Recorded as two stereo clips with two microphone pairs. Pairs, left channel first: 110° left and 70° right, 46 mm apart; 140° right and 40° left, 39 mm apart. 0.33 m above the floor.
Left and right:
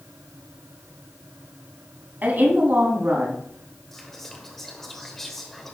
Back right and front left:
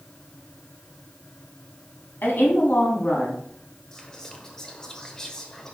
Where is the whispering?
Straight behind, 0.9 m.